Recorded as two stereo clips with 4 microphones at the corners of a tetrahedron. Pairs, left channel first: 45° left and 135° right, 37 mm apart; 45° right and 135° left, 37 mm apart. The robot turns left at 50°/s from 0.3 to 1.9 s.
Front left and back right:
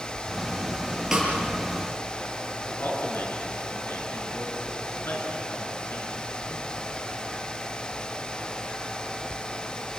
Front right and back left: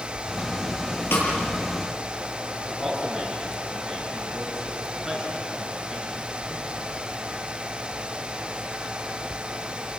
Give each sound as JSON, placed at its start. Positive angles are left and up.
{"t": 1.1, "sound": "a snare drum", "azimuth_deg": -55, "distance_m": 7.0}
{"t": 2.7, "sound": "a man speaking", "azimuth_deg": 45, "distance_m": 6.0}